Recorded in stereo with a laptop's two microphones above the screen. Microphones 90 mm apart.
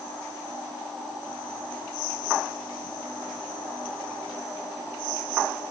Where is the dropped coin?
I don't hear a dropped coin.